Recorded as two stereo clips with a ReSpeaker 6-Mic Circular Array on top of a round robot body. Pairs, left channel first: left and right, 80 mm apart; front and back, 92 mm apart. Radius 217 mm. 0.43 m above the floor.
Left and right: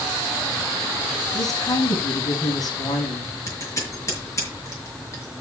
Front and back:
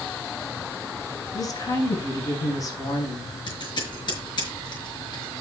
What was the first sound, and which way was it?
A woman speaking, 50° left.